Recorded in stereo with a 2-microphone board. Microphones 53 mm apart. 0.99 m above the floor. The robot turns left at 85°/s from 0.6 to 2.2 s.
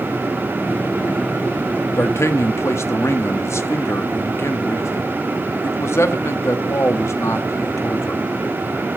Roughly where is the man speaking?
Left.